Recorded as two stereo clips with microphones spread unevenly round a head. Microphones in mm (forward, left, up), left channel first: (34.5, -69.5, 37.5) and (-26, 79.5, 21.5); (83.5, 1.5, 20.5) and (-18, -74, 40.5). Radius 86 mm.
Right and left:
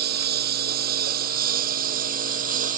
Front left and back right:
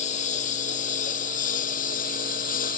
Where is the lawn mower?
85° left; by 2.8 s 70° left.